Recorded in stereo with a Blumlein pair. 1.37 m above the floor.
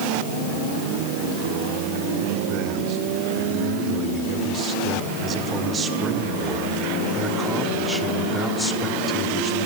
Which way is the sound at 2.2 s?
40° right.